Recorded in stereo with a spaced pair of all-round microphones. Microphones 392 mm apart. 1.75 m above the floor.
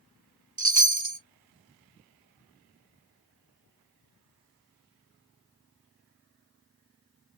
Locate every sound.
0.6 s a chime: 45° right (ahead or behind), 0.7 m